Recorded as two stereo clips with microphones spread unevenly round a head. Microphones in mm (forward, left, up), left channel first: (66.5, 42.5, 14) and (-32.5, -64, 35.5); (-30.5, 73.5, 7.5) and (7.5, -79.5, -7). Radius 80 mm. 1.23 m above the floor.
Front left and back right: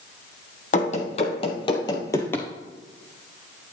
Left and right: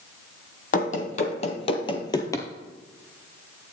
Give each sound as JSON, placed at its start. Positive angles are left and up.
{"t": 0.7, "sound": "running footsteps", "azimuth_deg": 95, "distance_m": 1.9}